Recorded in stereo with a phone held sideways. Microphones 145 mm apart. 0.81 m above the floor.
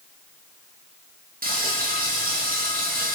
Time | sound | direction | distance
1.4 | frying | 85° right | 0.6 m